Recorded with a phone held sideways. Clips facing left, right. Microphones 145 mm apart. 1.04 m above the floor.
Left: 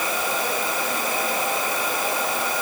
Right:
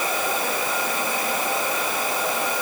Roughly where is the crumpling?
I don't hear crumpling.